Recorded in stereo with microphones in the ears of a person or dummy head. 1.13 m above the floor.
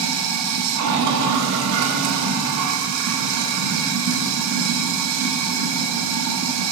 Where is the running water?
75° right (ahead or behind), 1.0 m.